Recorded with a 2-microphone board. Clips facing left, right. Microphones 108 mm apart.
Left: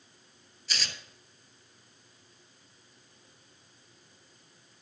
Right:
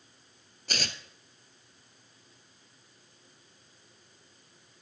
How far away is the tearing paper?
About 0.8 m.